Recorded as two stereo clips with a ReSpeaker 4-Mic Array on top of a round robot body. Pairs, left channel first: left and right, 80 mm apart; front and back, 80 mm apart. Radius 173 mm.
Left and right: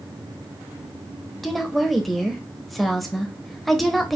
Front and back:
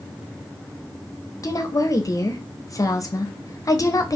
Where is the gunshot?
I don't hear a gunshot.